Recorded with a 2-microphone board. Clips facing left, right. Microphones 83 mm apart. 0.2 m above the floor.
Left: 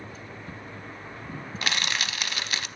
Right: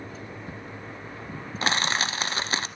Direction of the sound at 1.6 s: 35° right (ahead or behind).